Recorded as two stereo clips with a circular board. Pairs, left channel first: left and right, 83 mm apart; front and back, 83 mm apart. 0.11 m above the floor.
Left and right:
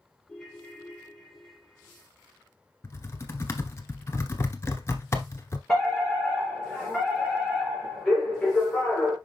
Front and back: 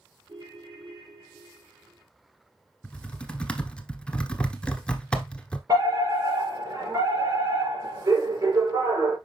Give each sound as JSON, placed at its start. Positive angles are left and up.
{"t": 0.3, "sound": "a ringtone", "azimuth_deg": 175, "distance_m": 3.0}
{"t": 2.8, "sound": "typing on a keyboard", "azimuth_deg": 70, "distance_m": 1.0}
{"t": 5.7, "sound": "a fire alarm", "azimuth_deg": 175, "distance_m": 3.5}